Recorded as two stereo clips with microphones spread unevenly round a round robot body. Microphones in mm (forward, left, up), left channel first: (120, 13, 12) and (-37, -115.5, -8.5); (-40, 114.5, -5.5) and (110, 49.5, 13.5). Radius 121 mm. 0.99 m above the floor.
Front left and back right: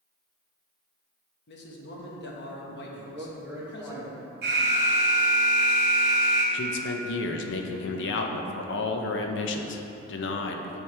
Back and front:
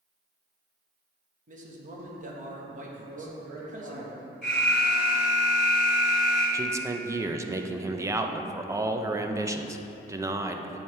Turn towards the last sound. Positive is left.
turn(degrees=50)